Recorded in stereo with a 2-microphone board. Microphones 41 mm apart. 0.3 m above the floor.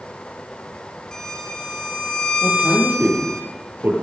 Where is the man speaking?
50° right (ahead or behind), 10 m.